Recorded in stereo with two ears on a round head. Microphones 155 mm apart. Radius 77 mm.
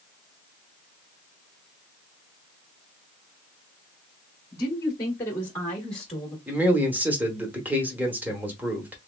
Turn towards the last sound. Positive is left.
turn(degrees=-10)  # may be behind; listen again after turning